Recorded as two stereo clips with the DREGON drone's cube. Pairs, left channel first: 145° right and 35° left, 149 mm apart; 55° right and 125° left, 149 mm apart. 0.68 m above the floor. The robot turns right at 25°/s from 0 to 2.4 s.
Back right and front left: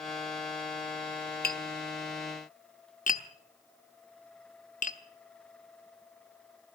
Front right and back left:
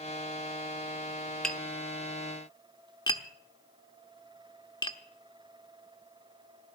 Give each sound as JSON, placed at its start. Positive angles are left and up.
{"t": 1.4, "sound": "tapping", "azimuth_deg": -140, "distance_m": 0.9}